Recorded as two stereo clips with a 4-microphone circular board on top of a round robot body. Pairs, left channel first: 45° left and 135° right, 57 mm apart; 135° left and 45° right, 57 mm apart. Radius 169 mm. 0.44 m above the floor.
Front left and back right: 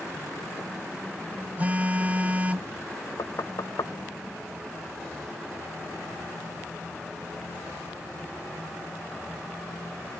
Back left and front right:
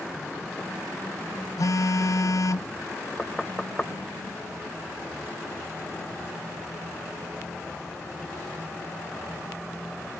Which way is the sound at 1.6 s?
160° left.